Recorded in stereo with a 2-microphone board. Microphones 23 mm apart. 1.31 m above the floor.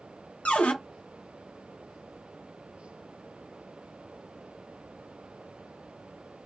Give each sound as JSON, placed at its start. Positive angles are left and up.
{"t": 0.5, "sound": "a cupboard door", "side_deg": 70, "distance_m": 0.8}